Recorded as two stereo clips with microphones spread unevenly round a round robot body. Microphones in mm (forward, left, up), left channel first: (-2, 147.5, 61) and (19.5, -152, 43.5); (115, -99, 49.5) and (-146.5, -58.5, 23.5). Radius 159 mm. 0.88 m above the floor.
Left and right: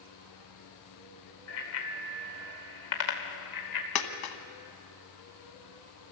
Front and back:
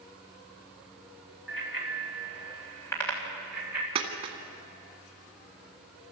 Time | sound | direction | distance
1.5 | a bicycle bell | 50° left | 2.5 m
4.0 | a dropped coin | 95° left | 1.5 m